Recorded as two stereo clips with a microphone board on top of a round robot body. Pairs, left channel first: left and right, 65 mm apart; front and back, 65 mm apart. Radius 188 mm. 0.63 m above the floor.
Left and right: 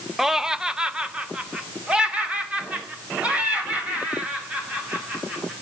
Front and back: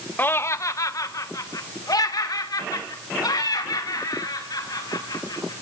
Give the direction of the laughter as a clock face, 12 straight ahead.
12 o'clock.